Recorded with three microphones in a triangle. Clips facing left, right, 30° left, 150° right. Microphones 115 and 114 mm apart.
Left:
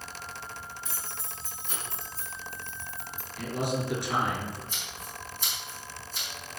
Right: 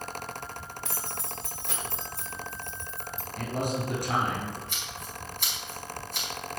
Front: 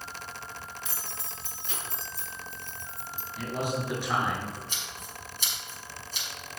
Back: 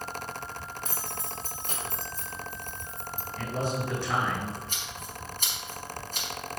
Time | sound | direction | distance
0.8 | keys jangling | 105° right | 1.9 m
3.4 | a man speaking | 50° right | 5 m
4.7 | scissors | 105° right | 5.5 m